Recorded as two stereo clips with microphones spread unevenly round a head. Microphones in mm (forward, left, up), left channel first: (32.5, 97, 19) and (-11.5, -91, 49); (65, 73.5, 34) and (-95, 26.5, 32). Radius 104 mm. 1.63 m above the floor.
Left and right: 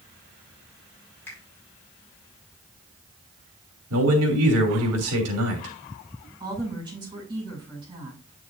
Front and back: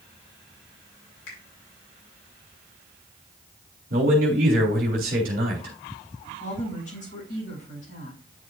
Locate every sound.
1.3 s a finger snap: 5° right, 5.5 m
3.9 s a man speaking: 115° right, 3 m
6.4 s a woman speaking: 35° right, 6 m